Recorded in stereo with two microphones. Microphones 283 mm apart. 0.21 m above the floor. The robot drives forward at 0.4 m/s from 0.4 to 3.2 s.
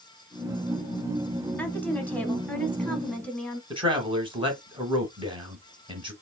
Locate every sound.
1.6 s a woman speaking: 5° left (ahead or behind), 1.0 m
3.7 s a man speaking: 20° right (ahead or behind), 1.3 m